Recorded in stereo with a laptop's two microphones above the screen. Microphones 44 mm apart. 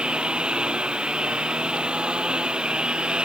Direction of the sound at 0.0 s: 20° right (ahead or behind).